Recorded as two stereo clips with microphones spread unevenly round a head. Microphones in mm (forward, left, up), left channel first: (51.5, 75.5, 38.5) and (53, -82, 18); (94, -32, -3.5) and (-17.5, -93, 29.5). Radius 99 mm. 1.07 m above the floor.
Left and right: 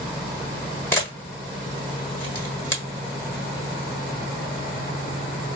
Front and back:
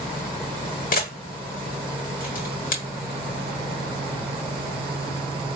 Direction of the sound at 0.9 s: 25° left.